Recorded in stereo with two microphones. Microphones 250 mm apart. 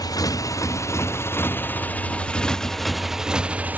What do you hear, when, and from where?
0.0 s a motorcycle: 15° left (ahead or behind); by 3.8 s 5° right (ahead or behind)